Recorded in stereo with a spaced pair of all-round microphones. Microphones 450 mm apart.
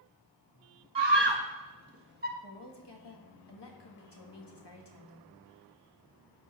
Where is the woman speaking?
65° left (ahead or behind), 1.5 m.